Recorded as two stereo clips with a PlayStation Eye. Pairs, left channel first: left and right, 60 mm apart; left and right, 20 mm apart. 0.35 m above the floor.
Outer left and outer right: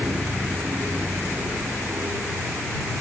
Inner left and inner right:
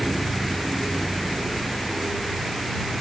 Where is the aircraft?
50° right (ahead or behind).